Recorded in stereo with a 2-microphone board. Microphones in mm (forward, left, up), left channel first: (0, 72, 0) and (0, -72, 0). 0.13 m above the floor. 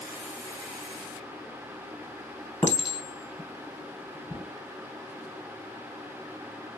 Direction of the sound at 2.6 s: 20° left (ahead or behind).